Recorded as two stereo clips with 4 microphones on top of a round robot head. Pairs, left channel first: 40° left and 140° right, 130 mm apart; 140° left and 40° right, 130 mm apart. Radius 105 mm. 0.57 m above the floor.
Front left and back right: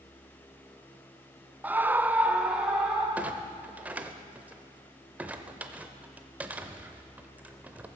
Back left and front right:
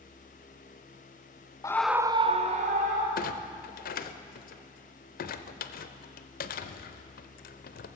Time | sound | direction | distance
1.6 | a scream | 160° left | 0.7 m
3.2 | a clunk | 145° left | 0.6 m